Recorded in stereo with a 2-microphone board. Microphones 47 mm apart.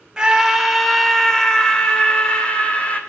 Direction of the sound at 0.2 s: 15° right (ahead or behind).